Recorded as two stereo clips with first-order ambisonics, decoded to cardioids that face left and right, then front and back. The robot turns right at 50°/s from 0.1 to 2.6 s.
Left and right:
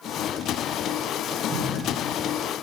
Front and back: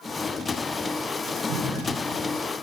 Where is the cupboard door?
160° right, 8 m; by 1.9 s 135° right, 8 m.